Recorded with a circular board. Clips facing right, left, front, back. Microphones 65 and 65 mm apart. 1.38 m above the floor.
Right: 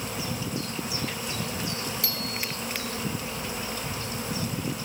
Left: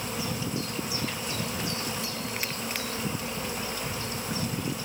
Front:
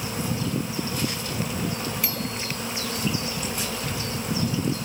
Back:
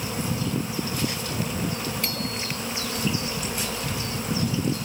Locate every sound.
2.0 s a bicycle bell: 85° right